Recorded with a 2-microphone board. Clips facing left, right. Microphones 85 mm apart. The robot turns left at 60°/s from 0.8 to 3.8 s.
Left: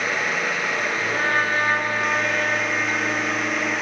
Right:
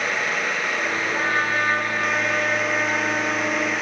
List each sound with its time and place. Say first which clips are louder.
1.1 s a trumpet: left 2 dB; 65° left, 2 m; by 3.7 s 90° right, 2 m